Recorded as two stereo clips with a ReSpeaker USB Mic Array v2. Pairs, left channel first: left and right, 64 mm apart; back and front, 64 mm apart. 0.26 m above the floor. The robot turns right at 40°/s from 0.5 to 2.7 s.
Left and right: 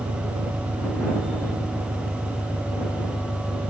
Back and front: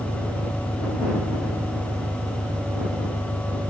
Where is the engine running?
50° right; by 3.7 s 35° left.